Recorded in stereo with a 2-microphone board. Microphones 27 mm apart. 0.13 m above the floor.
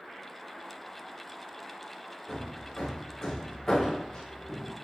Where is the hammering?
25° left (ahead or behind), 3.5 m.